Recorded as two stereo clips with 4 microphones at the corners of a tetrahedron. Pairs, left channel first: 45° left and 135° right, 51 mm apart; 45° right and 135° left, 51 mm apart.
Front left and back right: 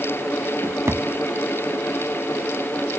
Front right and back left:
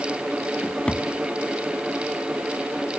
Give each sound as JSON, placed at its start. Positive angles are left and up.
{"t": 0.6, "sound": "a drawer", "azimuth_deg": -115, "distance_m": 1.4}